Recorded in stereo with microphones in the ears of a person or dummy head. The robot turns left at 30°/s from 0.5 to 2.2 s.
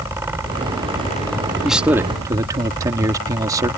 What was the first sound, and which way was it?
A man speaking, centre (ahead or behind).